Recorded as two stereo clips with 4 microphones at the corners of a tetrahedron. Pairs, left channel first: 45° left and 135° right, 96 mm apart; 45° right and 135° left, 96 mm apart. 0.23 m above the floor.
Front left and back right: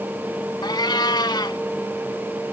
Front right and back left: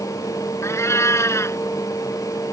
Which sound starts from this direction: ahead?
A cat meowing, at 0.6 s.